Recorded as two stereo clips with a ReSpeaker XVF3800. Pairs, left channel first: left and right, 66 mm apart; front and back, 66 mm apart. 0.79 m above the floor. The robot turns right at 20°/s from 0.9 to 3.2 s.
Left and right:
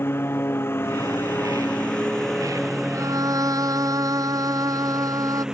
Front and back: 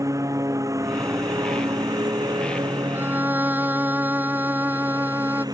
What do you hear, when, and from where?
0.0 s a lawn mower: 145° left; by 5.5 s 170° right
2.9 s a violin: 125° right; by 5.5 s 120° right